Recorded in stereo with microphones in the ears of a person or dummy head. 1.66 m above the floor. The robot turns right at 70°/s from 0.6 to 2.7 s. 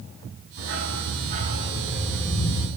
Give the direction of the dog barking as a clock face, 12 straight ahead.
3 o'clock.